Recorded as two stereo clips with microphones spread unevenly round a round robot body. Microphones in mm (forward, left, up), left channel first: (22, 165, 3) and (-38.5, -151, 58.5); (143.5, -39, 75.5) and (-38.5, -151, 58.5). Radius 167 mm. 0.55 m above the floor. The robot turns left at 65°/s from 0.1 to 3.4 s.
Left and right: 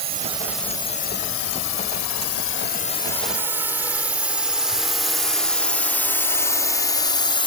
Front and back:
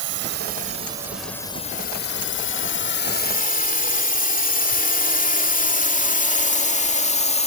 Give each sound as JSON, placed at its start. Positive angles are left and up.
{"t": 0.0, "sound": "a drone", "azimuth_deg": -165}